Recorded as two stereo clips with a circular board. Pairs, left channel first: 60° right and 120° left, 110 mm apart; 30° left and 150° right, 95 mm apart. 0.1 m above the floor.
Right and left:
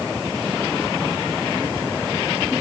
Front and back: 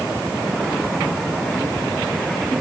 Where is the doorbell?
I don't hear a doorbell.